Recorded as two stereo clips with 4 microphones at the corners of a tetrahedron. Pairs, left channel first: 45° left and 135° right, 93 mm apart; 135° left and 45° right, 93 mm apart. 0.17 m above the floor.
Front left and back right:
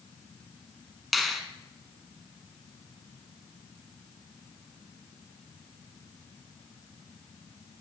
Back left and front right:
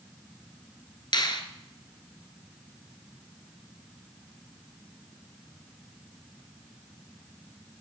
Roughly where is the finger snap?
Behind left.